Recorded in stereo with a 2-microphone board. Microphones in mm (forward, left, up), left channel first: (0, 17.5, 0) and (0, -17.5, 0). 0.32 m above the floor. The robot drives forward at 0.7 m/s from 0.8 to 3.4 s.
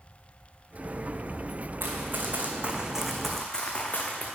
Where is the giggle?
No giggle in this recording.